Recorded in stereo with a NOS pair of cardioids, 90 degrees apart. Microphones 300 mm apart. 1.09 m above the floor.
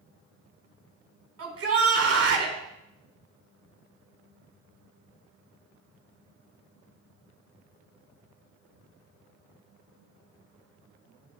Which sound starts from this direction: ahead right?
A shout, at 1.4 s.